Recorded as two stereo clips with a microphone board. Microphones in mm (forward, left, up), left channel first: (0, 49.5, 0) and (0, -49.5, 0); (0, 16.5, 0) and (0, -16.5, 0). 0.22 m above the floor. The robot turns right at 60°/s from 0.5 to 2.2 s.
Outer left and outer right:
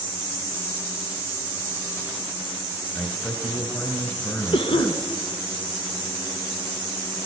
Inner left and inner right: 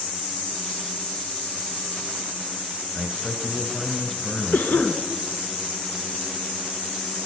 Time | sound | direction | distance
2.9 | a man speaking | 25° left (ahead or behind) | 3 m
4.5 | a cough | 65° left (ahead or behind) | 2.5 m